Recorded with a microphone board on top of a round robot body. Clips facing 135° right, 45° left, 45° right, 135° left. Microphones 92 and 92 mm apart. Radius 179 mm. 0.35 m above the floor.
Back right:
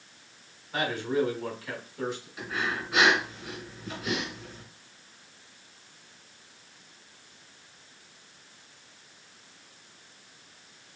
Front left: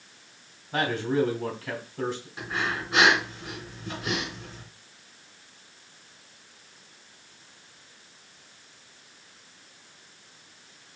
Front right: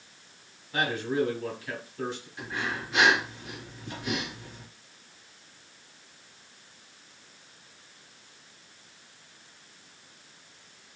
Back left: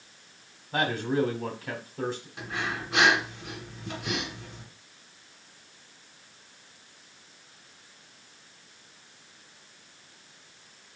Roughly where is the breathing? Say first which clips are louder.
Front left 1 dB, front right 3 dB; left.